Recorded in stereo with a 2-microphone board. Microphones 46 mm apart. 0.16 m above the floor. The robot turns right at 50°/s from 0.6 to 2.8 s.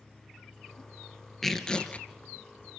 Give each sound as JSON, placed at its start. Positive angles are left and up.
{"t": 1.4, "sound": "tearing paper", "azimuth_deg": 5, "distance_m": 2.5}